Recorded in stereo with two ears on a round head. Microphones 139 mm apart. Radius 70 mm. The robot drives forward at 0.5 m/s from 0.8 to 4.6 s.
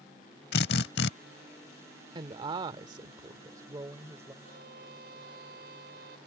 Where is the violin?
60° right (ahead or behind).